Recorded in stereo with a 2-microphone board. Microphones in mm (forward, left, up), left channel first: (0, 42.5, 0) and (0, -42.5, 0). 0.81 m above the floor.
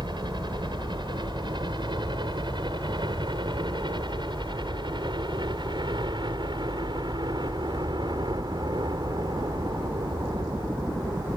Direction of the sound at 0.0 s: 60° right (ahead or behind).